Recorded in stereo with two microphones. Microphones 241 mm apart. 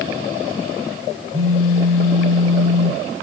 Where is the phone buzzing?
70° right (ahead or behind), 3.5 m.